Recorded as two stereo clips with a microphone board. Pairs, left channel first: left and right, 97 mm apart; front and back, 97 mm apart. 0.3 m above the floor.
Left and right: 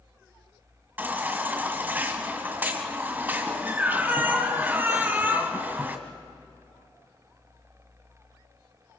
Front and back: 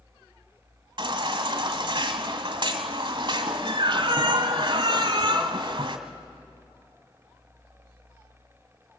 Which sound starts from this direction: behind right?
A baby crying, at 1.0 s.